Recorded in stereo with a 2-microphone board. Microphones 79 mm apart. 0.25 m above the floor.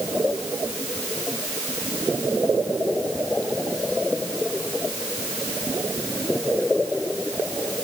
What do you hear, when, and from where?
Only background noise.